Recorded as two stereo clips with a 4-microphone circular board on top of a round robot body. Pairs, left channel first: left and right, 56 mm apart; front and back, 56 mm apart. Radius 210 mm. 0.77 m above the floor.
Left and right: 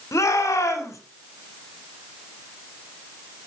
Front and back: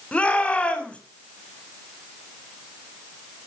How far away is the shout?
About 4 m.